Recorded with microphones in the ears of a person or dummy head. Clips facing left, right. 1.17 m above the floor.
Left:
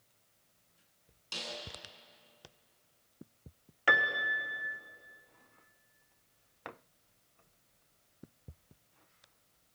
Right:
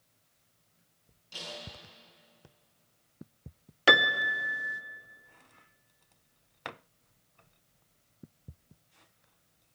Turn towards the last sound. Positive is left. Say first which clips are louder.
# right 7 dB
turn(degrees=-50)  # may be behind; listen again after turning